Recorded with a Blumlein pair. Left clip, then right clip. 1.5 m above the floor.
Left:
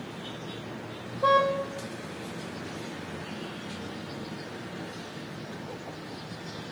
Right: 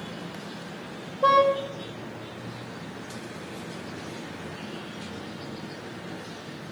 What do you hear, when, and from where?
1.2 s a car horn: 10° right, 4.5 m